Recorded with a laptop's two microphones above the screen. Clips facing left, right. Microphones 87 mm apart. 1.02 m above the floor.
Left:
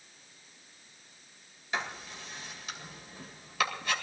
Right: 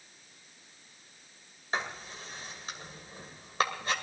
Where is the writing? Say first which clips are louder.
Right 1 dB; 35° right (ahead or behind), 2 m.